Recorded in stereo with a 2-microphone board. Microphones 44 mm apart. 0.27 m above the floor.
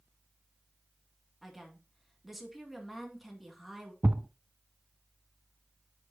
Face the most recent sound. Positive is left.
turn(degrees=-45)  # may be behind; listen again after turning